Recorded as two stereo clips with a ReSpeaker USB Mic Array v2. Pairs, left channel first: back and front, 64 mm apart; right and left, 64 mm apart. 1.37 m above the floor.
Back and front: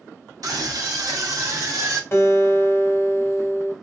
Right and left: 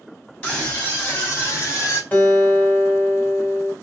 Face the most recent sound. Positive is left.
turn(degrees=-150)